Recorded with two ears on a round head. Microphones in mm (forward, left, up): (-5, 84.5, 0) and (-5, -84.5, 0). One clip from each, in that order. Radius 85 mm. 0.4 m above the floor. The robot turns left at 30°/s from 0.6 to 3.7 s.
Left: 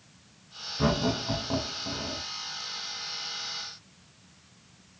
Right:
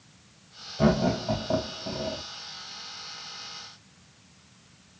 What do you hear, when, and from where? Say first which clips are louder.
0.8 s laughter: right 3 dB; 20° right (ahead or behind), 1.3 m; by 2.2 s 10° left (ahead or behind), 1.3 m